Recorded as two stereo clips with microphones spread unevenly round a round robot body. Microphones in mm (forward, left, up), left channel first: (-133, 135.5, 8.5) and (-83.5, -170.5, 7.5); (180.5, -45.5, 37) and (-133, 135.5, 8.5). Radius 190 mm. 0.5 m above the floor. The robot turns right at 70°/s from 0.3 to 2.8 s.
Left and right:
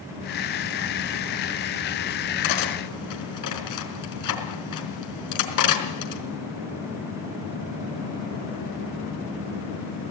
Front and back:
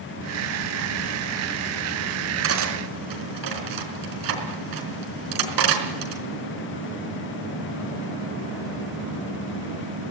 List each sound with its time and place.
2.4 s cutlery clinking: 95° left, 4 m; by 6.2 s 120° left, 4 m